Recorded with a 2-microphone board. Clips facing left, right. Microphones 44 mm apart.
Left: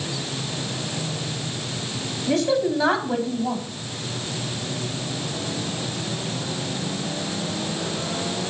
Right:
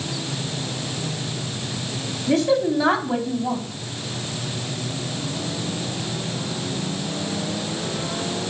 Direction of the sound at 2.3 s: 5° left (ahead or behind).